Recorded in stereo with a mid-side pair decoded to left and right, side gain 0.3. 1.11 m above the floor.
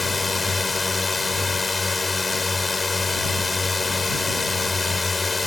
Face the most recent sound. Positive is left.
turn(degrees=35)